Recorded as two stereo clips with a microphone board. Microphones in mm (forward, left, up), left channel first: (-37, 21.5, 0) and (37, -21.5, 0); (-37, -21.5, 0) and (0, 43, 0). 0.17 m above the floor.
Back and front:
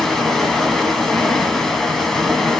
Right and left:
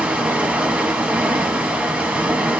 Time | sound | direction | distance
0.0 | running water | 75° left | 0.9 m